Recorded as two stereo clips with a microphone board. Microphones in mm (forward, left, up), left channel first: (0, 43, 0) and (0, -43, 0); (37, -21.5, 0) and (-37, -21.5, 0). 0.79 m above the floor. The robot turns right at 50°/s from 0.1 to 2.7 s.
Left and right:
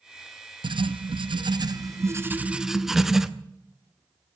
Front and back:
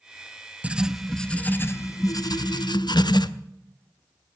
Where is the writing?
110° right, 0.6 m; by 3.3 s 5° right, 0.6 m.